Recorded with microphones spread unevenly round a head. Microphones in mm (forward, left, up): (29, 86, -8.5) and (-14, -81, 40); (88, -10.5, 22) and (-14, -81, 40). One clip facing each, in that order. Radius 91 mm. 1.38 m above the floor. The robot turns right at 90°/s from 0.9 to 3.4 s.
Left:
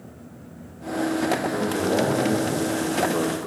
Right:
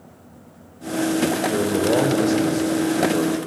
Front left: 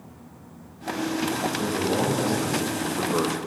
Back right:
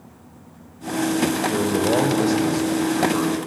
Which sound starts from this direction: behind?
A man speaking, at 1.5 s.